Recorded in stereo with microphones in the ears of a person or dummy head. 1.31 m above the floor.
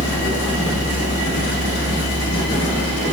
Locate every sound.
0.0 s a fan: 60° left (ahead or behind), 1.4 m